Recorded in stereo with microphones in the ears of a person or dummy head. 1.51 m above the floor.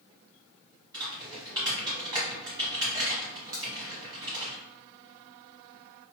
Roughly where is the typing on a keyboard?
Centre.